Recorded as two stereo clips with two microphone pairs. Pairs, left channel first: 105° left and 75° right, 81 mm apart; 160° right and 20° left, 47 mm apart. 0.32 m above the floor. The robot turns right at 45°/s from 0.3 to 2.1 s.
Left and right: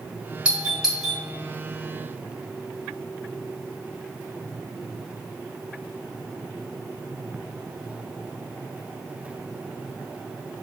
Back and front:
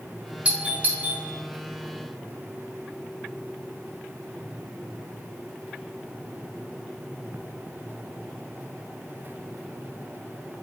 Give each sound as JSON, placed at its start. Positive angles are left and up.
{"t": 0.5, "sound": "a doorbell", "azimuth_deg": -15, "distance_m": 1.7}